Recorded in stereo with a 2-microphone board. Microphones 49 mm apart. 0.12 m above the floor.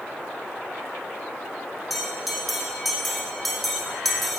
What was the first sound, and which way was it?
A bell, centre (ahead or behind).